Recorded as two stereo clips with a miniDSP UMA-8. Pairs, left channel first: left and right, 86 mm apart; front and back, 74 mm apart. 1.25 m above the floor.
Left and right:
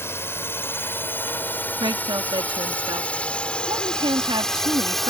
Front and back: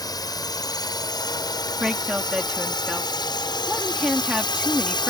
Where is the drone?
30° left; by 5.1 s straight ahead.